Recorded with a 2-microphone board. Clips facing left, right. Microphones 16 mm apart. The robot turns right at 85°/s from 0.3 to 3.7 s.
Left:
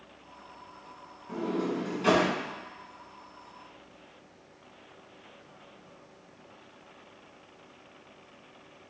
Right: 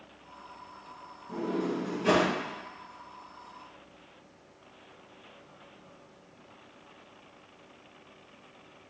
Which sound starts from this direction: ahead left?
A sliding door, at 1.3 s.